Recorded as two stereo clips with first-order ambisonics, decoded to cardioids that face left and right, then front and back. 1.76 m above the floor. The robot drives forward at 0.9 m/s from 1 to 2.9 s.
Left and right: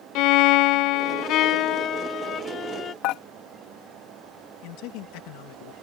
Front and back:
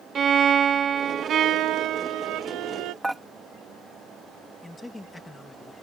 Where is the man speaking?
85° left.